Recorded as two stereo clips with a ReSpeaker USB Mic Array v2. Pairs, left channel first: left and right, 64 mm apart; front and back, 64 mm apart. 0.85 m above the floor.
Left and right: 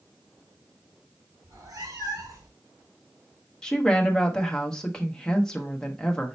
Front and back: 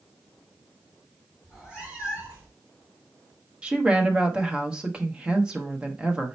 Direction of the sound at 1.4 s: 105° right.